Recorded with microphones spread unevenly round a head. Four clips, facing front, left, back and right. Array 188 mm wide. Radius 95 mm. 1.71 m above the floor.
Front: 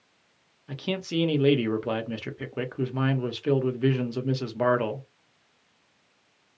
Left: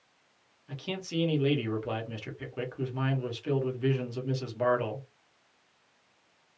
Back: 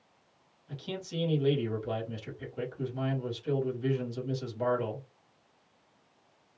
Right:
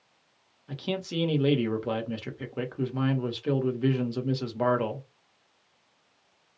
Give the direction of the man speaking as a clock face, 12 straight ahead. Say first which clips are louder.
Right 4 dB, front 8 dB; 1 o'clock.